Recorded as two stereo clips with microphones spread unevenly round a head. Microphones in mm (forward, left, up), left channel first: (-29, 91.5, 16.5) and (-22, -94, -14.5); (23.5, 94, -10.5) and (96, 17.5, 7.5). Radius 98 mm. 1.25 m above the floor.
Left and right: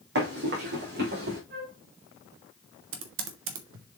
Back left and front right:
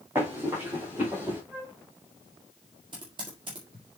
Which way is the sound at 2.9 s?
110° right.